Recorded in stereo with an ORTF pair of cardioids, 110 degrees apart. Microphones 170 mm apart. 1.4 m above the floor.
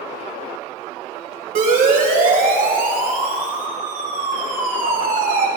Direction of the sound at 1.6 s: 55° right.